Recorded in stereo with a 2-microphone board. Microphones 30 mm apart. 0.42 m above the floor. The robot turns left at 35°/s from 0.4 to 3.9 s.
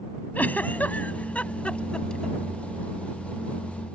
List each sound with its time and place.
0.3 s a giggle: 75° left (ahead or behind); by 2.4 s 25° left (ahead or behind)